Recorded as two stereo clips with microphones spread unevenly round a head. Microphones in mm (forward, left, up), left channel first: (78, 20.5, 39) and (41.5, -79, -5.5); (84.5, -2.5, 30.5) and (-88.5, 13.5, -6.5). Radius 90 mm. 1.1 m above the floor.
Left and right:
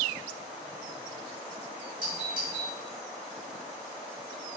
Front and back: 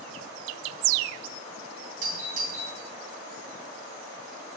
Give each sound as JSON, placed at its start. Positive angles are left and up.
{"t": 2.0, "sound": "a doorbell", "azimuth_deg": -145, "distance_m": 3.5}